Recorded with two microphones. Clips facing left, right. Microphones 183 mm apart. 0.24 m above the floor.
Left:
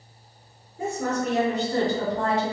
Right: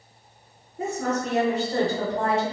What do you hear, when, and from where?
0.8 s a woman speaking: 30° right (ahead or behind), 2.0 m; by 2.5 s 25° right (ahead or behind), 1.5 m